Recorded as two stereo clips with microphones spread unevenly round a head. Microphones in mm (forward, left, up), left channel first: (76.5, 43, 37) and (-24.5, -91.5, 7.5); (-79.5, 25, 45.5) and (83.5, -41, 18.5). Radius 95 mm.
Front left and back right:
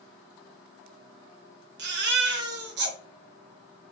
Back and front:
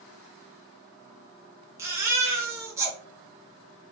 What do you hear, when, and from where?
1.8 s a baby crying: 100° right, 0.7 m